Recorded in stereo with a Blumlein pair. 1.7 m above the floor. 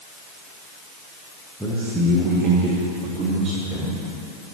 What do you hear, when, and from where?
1.6 s a man speaking: 5° right, 1.6 m; by 4.0 s 25° right, 3 m